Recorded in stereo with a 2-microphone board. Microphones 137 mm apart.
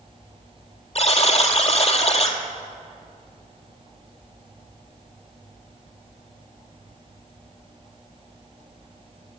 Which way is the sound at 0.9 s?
50° left (ahead or behind).